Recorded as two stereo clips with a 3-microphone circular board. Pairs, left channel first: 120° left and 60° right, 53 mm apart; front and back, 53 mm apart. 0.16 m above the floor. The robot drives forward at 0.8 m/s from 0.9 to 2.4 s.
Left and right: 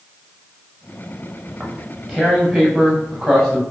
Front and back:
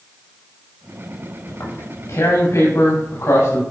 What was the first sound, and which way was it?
Tearing paper, 30° left.